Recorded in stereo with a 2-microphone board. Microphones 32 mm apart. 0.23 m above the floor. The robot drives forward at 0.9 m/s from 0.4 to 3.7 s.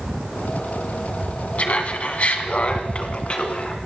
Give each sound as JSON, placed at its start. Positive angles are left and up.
{"t": 1.6, "sound": "laughter", "side_deg": 45, "distance_m": 1.6}